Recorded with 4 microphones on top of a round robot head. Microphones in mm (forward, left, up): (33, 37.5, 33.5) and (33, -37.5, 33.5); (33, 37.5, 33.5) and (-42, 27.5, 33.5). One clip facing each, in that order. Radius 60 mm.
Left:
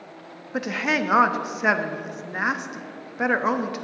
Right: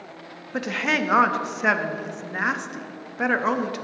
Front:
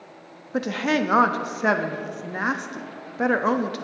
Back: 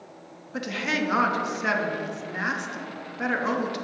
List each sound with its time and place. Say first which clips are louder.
0.5 s a woman speaking: even, front 5 dB; 10° left, 0.7 m